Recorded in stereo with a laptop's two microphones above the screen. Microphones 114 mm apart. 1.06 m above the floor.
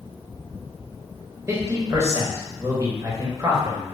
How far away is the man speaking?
About 1.2 m.